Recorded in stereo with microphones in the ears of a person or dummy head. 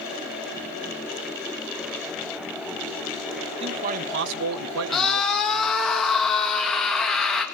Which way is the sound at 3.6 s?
30° right (ahead or behind).